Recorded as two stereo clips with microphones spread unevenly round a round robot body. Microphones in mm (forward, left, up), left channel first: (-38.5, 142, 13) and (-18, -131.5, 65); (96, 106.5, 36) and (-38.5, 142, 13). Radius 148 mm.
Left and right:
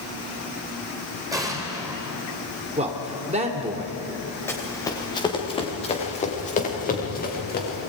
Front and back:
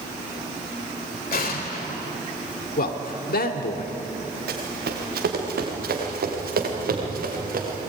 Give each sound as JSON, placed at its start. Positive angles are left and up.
{"t": 1.3, "sound": "an explosion", "azimuth_deg": -5, "distance_m": 3.5}
{"t": 2.8, "sound": "a man speaking", "azimuth_deg": -15, "distance_m": 2.5}
{"t": 4.5, "sound": "running footsteps", "azimuth_deg": 180, "distance_m": 5.0}